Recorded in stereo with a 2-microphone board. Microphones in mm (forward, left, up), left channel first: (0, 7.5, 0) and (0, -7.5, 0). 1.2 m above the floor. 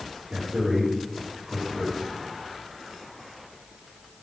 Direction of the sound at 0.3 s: 65° right (ahead or behind).